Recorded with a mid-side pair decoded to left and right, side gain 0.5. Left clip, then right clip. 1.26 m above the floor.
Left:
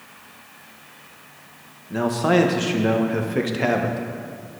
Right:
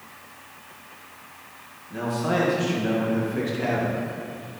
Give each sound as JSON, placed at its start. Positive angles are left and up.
{"t": 1.9, "sound": "a man speaking", "azimuth_deg": 50, "distance_m": 1.2}